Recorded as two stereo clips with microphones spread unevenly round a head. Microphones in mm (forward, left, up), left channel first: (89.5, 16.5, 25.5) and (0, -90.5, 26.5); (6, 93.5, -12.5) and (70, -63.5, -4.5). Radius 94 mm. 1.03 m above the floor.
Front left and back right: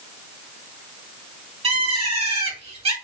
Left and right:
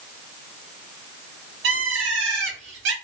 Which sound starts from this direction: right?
A bird, at 1.6 s.